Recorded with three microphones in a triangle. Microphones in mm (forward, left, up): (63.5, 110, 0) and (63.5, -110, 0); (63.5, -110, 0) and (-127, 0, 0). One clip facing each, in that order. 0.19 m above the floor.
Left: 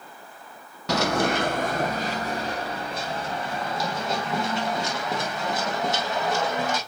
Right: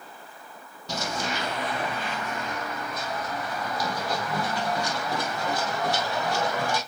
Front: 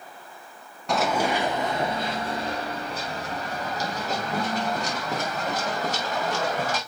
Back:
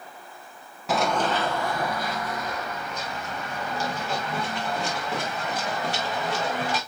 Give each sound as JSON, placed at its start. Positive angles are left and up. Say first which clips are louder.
{"t": 0.9, "sound": "running footsteps", "louder": "left 9 dB, even", "azimuth_deg": 65, "distance_m": 0.6}